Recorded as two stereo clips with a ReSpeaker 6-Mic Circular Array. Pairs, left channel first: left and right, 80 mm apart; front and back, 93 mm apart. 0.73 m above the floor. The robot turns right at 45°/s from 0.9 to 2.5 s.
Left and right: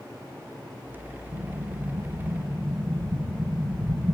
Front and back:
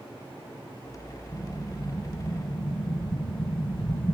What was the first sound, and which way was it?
An explosion, 85° right.